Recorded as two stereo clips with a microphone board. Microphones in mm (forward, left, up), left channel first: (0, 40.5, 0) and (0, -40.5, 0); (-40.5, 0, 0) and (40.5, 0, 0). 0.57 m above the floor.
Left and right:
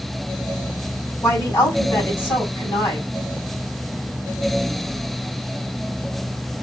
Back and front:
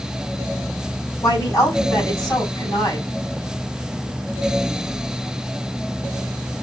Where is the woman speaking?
135° left, 3.5 m.